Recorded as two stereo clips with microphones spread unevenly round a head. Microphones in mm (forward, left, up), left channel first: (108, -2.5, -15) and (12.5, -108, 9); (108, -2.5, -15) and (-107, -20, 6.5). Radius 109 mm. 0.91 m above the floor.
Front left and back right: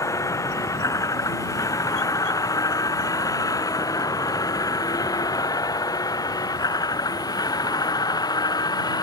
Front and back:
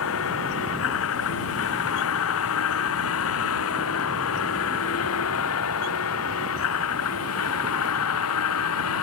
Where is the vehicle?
20° right; by 9.0 s 15° right.